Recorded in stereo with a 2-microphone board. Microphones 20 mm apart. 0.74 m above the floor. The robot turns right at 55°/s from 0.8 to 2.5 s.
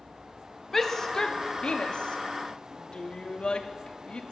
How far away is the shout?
About 1.1 m.